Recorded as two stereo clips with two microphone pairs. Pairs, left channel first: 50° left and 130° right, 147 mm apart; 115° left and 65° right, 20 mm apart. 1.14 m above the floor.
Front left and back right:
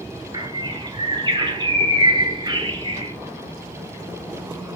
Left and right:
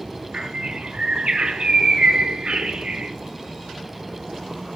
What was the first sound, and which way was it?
A bird, 75° right.